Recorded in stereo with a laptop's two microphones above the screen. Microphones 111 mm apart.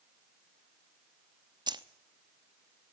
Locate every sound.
1.7 s keys jangling: 40° right (ahead or behind), 0.9 m